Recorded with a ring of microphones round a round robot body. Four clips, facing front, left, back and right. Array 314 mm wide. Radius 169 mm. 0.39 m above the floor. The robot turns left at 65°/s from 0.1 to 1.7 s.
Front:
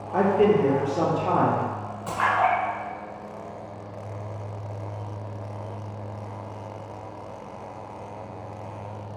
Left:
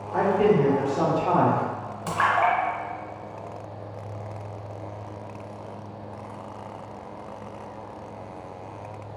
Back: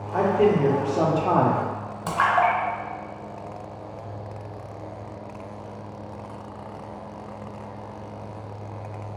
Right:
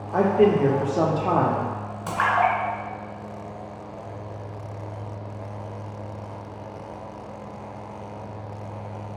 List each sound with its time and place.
0.1 s a man speaking: 60° right, 0.8 m; by 1.6 s 155° right, 0.8 m
2.1 s a splash: 160° right, 1.1 m